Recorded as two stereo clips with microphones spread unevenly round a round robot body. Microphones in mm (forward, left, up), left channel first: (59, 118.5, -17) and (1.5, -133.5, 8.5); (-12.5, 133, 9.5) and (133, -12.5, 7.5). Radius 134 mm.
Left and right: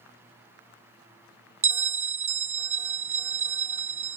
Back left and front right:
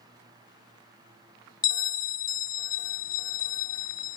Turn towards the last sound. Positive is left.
turn(degrees=-165)